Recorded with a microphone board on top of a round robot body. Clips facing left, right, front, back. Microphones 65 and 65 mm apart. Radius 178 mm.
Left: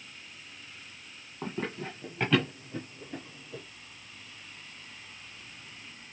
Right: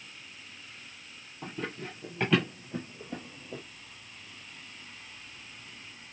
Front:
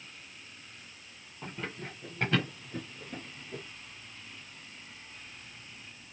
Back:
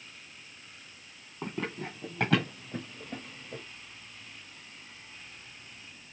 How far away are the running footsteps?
About 1.4 m.